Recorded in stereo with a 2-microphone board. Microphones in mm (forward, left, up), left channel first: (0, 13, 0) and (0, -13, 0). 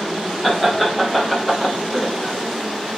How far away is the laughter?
About 1.5 m.